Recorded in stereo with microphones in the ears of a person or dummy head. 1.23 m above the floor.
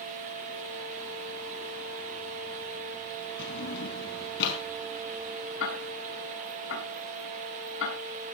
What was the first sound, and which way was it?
A drawer, 70° left (ahead or behind).